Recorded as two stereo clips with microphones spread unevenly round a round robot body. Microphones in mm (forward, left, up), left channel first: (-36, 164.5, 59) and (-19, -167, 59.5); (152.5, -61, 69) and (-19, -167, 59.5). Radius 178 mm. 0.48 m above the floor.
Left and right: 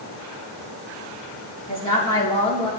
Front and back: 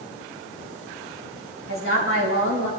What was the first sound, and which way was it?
A woman speaking, 20° left.